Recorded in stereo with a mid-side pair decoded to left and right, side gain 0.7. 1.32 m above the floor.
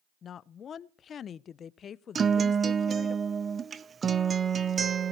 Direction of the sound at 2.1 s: 25° right.